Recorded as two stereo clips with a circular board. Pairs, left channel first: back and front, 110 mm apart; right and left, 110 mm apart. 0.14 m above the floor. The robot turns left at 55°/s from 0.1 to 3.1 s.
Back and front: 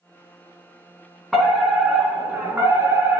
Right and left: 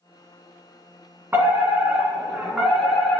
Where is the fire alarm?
90° left, 2.0 m; by 3.2 s 10° right, 2.0 m.